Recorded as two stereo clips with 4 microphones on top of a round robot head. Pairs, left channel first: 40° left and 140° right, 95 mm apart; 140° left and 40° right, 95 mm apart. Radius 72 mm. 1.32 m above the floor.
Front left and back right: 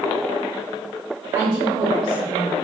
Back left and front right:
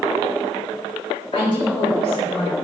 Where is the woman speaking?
175° left, 3.5 m.